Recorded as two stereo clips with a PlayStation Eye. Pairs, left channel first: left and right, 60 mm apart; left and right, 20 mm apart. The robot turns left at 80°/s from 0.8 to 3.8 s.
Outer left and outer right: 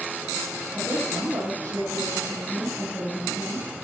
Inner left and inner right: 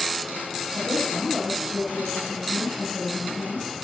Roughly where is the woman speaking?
Ahead.